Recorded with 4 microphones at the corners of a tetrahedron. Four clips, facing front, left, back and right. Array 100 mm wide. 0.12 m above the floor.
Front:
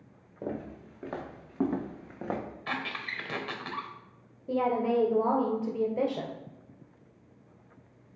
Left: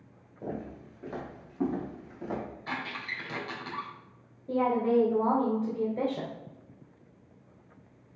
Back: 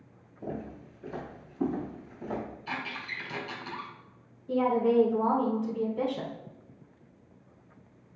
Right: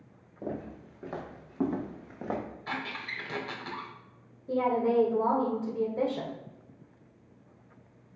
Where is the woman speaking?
10° left, 2.5 m.